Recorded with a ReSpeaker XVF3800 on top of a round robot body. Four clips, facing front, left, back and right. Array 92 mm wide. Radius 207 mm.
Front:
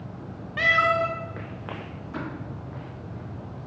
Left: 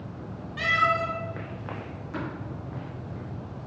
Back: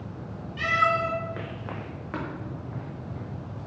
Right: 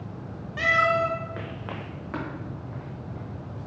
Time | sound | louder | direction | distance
0.6 | a cat meowing | right 2 dB, front 2 dB | 20° right | 0.7 m
2.1 | tapping | right 1 dB, back 1 dB | 140° right | 1.3 m